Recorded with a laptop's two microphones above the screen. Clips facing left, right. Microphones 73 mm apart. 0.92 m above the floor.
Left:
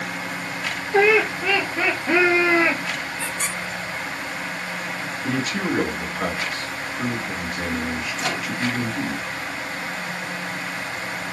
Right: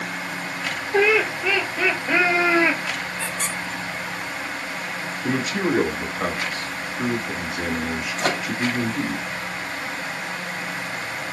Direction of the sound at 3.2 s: 30° left (ahead or behind).